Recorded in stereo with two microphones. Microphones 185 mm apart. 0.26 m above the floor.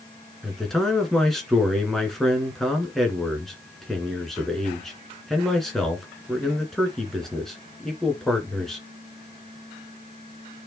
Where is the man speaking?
Centre (ahead or behind), 2.5 m.